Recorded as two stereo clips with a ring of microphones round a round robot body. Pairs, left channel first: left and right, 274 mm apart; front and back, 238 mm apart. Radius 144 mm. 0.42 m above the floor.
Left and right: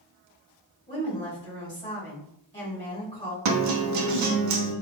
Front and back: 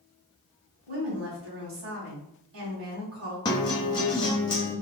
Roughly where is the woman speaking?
Behind.